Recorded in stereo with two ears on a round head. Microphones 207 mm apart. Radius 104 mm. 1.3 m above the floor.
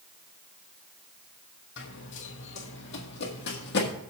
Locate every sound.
1.8 s running footsteps: 55° left (ahead or behind), 2 m; by 3.9 s 45° left (ahead or behind), 2.5 m